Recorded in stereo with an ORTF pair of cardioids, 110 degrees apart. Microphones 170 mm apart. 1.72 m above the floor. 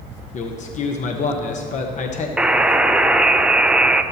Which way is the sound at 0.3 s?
45° left.